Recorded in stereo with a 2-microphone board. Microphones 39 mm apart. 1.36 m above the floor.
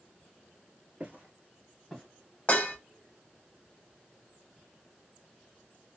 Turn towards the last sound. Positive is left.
turn(degrees=40)  # may be behind; listen again after turning